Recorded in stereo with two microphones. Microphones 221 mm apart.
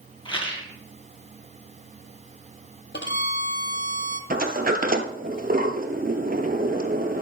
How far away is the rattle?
About 2.0 m.